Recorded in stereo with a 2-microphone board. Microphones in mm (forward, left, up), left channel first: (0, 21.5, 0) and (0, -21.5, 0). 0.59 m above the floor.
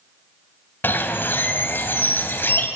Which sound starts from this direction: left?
A bird, at 0.8 s.